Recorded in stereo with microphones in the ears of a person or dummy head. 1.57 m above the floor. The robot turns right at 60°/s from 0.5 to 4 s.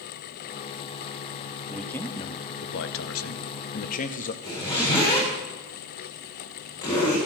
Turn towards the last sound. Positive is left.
turn(degrees=25)  # may be behind; listen again after turning